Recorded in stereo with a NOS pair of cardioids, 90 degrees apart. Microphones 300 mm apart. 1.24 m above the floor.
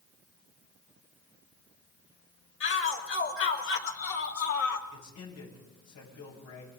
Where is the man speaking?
70° left, 9 m.